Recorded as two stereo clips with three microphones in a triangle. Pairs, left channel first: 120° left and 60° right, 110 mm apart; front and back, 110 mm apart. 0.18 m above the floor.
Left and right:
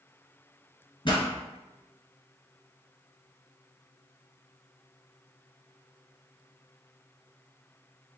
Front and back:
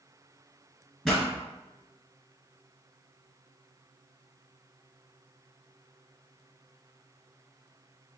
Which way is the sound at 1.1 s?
85° left.